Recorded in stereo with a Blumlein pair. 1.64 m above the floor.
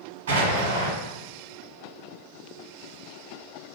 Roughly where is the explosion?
Ahead right.